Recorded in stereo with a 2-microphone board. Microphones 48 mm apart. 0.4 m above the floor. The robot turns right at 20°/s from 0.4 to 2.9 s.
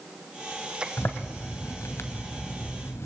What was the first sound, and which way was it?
A zipper, 60° left.